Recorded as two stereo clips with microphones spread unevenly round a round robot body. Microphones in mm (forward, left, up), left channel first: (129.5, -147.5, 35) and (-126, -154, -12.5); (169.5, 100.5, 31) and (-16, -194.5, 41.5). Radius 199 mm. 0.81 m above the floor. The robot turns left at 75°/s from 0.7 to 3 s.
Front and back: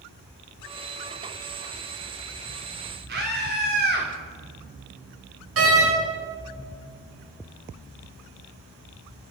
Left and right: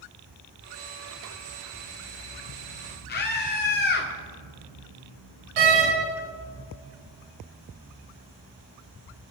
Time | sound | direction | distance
3.1 | a scream | 125° left | 1.9 m
5.6 | a door slam | 150° right | 4.5 m